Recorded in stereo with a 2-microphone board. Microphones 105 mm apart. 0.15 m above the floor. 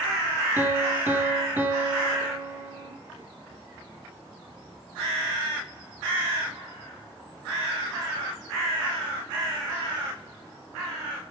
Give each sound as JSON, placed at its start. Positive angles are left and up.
{"t": 0.6, "sound": "a piano", "side_deg": -20, "distance_m": 3.5}